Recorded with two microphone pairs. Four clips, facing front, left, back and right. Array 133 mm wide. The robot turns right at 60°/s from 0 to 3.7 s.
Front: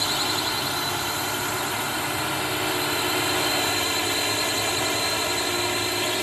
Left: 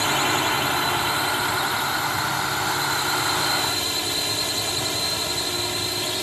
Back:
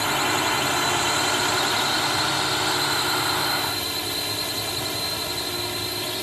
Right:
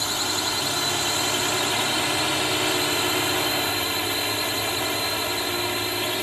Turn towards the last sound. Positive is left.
turn(degrees=-10)